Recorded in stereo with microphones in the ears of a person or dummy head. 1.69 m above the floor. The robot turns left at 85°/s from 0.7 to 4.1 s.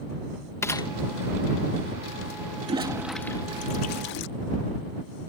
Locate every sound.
0.6 s a gunshot: 15° left (ahead or behind); by 0.9 s 30° left (ahead or behind)
2.6 s a toilet flushing: 35° right (ahead or behind); by 4.3 s 55° left (ahead or behind)